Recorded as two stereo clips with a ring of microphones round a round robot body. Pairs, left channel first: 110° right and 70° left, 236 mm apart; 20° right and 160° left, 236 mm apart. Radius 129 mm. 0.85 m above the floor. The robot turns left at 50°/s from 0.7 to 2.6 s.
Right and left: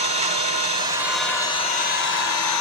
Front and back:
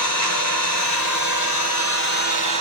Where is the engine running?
Straight ahead, 2.5 m; by 2.6 s 95° right, 2.5 m.